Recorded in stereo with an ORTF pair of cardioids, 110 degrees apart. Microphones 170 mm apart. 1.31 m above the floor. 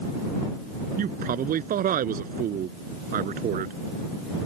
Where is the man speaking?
55° right.